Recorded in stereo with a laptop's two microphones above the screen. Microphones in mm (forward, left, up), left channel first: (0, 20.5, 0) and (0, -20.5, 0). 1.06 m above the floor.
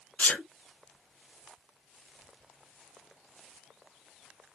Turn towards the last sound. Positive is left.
turn(degrees=45)  # may be behind; listen again after turning